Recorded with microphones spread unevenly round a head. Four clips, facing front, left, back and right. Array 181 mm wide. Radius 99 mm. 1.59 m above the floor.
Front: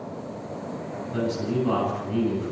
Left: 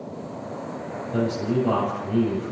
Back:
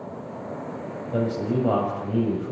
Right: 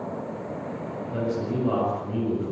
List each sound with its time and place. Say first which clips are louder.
1.1 s a man speaking: left 4 dB, back 2 dB; 170° left, 7.5 m